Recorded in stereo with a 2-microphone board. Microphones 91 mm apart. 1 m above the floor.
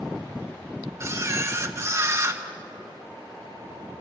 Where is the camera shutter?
35° right (ahead or behind), 1.4 m.